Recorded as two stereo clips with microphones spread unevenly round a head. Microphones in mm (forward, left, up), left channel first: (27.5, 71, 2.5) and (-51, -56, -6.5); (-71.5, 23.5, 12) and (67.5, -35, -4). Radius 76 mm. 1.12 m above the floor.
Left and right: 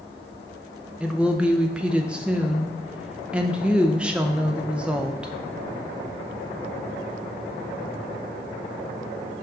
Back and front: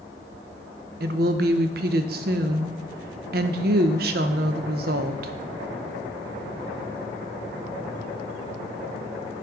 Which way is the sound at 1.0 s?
40° right.